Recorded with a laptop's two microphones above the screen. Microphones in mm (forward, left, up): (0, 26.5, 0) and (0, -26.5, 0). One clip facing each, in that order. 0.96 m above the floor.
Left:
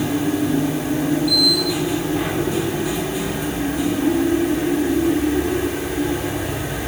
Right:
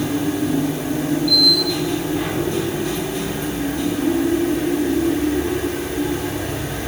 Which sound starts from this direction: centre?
A machine running, at 0.0 s.